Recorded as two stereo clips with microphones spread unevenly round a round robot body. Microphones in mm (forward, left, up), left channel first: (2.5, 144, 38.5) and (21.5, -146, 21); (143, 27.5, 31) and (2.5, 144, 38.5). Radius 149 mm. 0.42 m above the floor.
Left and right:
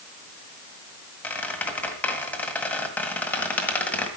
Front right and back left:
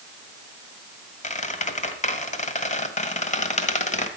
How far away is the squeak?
About 1.7 m.